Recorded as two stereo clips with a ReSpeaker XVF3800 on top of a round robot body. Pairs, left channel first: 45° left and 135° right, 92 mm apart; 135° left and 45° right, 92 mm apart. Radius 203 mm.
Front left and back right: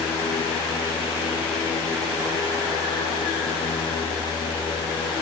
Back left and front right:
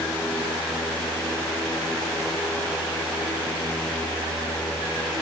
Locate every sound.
Only background noise.